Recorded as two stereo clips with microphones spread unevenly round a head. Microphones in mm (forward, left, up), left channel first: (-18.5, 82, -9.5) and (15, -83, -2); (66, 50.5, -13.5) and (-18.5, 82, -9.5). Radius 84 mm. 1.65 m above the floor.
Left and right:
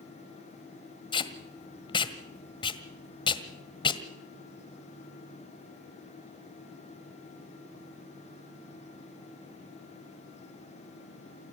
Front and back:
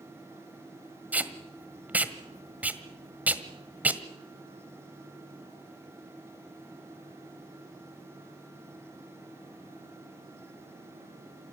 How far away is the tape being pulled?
About 1.5 m.